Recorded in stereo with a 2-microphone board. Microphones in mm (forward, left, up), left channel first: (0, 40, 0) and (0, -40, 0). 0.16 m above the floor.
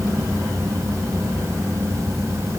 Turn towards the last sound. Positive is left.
No sound to turn to.